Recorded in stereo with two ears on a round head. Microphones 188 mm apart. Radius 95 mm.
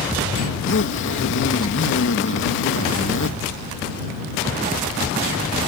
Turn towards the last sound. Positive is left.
turn(degrees=65)  # may be behind; listen again after turning